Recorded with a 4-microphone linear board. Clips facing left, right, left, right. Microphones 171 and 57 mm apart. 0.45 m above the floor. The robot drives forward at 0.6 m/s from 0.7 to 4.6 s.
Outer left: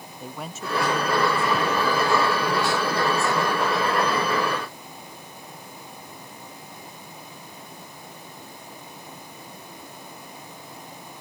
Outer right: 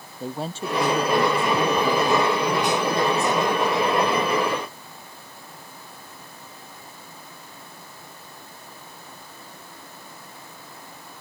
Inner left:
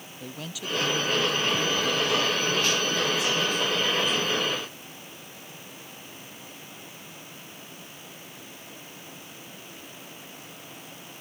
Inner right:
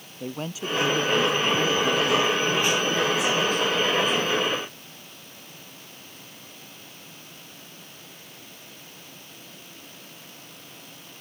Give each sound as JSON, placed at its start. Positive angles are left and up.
{"t": 0.2, "sound": "a woman speaking", "side_deg": -30}